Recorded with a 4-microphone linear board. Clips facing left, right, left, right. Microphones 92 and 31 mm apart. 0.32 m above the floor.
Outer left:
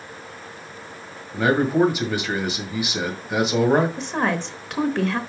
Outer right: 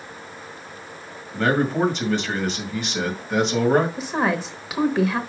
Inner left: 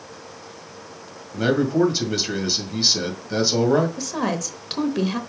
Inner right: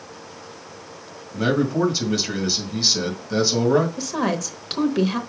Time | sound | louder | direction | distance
1.3 | a man speaking | outer left 2 dB, inner left 1 dB | 10° left (ahead or behind) | 2 m
4.0 | a woman speaking | outer right 1 dB, inner right 1 dB | 5° right (ahead or behind) | 0.9 m